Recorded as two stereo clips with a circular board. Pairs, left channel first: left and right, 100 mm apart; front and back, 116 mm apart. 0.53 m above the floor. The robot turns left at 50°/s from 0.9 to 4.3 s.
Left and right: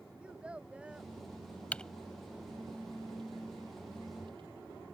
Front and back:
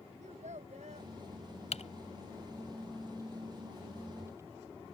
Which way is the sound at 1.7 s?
15° left.